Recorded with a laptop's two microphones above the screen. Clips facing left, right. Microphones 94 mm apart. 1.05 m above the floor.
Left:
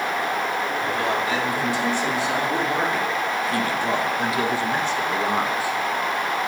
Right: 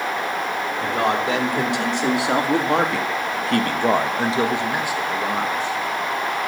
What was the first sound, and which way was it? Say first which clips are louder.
A man speaking: right 6 dB; 65° right (ahead or behind).